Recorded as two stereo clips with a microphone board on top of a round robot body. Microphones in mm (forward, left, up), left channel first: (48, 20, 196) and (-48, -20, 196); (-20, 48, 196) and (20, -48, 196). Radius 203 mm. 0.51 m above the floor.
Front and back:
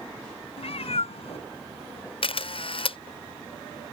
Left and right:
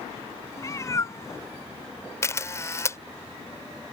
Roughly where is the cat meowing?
Ahead left.